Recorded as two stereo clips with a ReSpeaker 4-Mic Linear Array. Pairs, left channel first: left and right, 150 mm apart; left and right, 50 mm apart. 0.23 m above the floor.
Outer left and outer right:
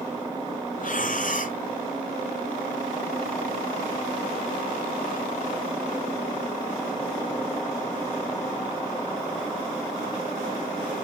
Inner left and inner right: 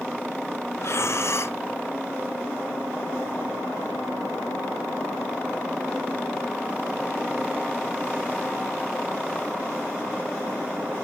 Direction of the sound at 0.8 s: 65° left (ahead or behind).